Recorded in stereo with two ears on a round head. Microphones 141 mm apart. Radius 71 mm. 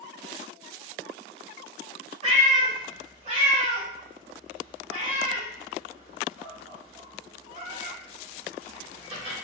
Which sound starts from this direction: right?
A cat meowing, at 2.2 s.